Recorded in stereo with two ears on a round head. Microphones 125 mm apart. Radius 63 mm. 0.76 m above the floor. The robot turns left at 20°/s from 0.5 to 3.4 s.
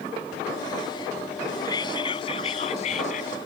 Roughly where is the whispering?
Behind left.